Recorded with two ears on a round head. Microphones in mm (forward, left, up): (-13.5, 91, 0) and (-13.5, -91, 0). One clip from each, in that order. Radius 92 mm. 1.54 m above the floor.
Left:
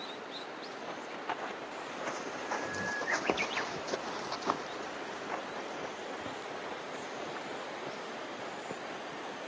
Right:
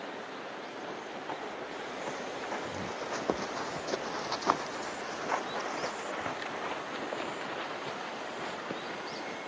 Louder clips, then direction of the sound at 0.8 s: Left 2 dB; 60° left (ahead or behind).